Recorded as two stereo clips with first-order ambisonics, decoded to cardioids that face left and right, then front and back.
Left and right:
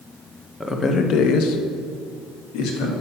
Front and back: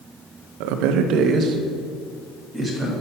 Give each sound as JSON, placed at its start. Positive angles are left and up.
{"t": 0.6, "sound": "a man speaking", "azimuth_deg": 175, "distance_m": 0.7}